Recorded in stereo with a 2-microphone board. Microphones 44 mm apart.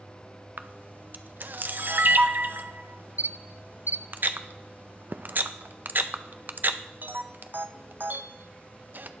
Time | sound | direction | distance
0.6 | a camera shutter | 50° right (ahead or behind) | 0.6 m